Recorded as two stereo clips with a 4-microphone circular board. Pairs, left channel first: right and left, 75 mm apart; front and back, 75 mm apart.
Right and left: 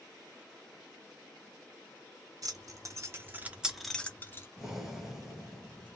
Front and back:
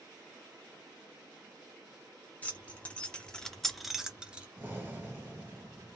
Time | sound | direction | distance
2.4 | keys jangling | 65° left | 1.0 m
4.6 | breathing | 175° left | 1.5 m